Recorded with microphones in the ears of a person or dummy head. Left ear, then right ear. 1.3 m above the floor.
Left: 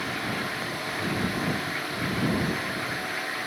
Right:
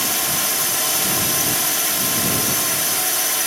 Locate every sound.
0.0 s a drone: 60° right (ahead or behind)